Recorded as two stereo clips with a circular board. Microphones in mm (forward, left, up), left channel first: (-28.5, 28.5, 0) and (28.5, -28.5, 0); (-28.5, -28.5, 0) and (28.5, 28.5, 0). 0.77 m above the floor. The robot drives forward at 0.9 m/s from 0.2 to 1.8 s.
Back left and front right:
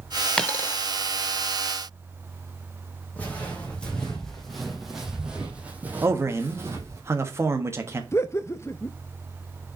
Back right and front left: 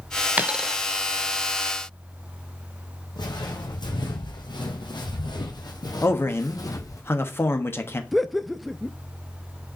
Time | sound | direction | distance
0.4 | a dropped coin | 70° left | 0.6 m
3.2 | footsteps | 155° right | 2.5 m
6.0 | a man speaking | 90° right | 1.3 m
8.1 | laughter | 135° left | 0.5 m